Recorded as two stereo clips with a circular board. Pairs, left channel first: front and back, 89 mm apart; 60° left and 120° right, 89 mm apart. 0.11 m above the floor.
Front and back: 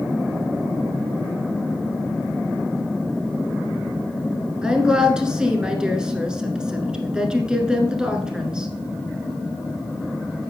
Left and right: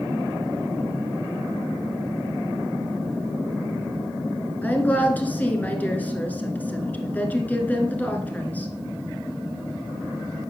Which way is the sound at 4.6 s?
110° left.